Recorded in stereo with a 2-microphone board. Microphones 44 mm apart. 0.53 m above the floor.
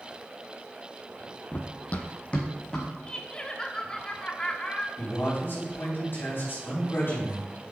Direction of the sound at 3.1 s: 20° left (ahead or behind).